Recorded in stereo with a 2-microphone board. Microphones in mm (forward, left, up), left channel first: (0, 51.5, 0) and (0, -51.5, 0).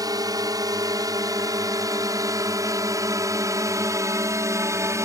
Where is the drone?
35° right (ahead or behind); by 5.0 s 30° right (ahead or behind).